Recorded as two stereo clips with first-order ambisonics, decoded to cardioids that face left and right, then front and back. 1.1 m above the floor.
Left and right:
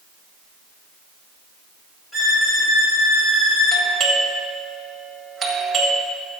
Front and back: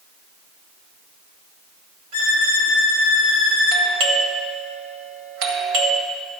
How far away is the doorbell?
About 1.7 m.